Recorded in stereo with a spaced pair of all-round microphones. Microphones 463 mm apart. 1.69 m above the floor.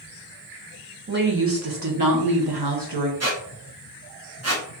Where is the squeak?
35° right (ahead or behind), 0.9 m.